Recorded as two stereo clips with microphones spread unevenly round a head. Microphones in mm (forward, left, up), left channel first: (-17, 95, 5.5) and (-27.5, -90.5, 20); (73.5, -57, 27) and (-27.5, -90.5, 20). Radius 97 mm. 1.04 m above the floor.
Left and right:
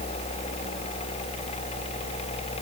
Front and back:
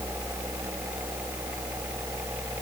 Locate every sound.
Only background noise.